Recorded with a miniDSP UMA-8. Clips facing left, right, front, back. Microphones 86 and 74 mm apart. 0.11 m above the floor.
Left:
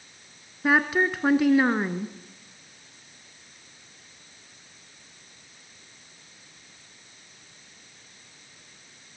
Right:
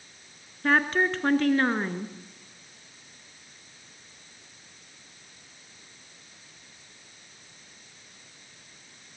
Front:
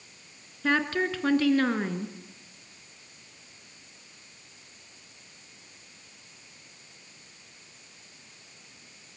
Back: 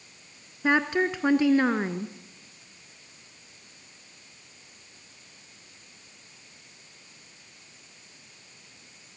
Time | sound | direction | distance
0.6 | a woman speaking | 155° left | 1.1 m